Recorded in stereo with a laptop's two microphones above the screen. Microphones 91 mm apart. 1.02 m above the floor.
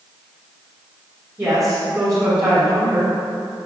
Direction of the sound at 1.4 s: 35° right (ahead or behind).